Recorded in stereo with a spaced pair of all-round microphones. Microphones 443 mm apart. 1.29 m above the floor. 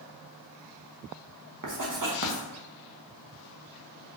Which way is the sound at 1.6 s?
45° right (ahead or behind).